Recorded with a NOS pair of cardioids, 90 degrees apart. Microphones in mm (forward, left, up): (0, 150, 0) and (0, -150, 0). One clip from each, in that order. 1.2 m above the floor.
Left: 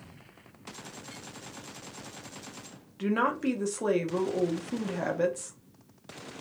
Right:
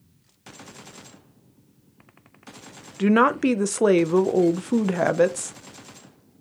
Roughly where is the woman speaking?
Ahead right.